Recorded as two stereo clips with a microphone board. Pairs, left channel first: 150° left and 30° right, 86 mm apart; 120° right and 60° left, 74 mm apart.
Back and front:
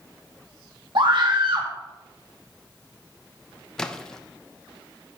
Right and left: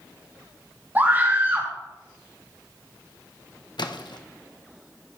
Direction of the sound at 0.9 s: 5° right.